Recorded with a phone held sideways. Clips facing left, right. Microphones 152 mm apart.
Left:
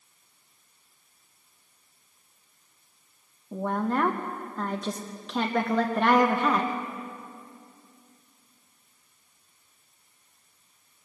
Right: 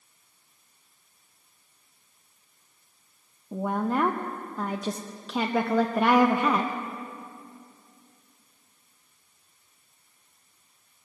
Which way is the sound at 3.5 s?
5° right (ahead or behind).